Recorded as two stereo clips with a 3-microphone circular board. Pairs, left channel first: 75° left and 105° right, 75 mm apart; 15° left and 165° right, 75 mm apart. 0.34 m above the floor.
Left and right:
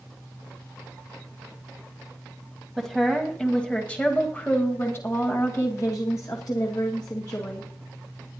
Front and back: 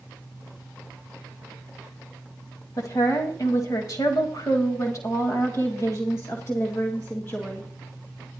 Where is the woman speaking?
15° right, 2 m; by 7.7 s 75° left, 2.5 m.